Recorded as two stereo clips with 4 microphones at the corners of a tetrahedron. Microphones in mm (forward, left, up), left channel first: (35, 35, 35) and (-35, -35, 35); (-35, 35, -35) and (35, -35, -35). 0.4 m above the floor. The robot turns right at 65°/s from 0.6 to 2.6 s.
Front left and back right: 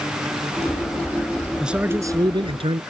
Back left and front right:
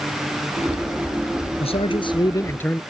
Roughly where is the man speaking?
Behind left.